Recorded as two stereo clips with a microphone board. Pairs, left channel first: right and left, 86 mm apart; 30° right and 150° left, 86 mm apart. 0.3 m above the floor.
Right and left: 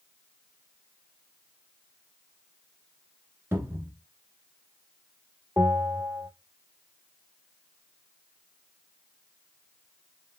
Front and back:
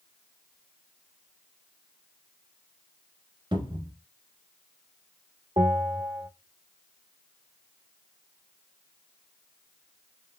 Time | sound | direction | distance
3.5 | a cupboard door | 150° left | 1.1 m
5.6 | a bell | 150° left | 1.2 m